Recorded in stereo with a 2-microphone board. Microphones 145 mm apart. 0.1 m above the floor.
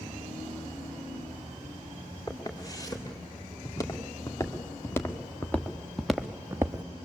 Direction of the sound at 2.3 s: 25° left (ahead or behind).